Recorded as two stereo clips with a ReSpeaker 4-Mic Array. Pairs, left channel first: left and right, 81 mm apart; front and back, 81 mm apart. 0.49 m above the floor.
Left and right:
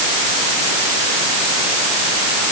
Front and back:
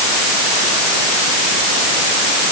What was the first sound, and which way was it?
Only background noise.